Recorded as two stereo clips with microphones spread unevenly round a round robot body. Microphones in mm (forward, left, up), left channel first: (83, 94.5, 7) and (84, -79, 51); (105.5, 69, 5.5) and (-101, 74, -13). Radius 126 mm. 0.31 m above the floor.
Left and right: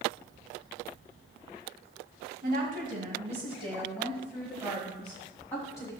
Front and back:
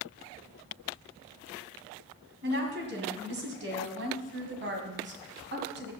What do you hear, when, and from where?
2.4 s a woman speaking: 140° right, 1.9 m; by 5.9 s 155° left, 2 m